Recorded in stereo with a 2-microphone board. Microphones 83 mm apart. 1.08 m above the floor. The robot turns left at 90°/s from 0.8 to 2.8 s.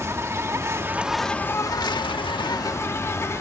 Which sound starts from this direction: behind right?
An insect, at 0.0 s.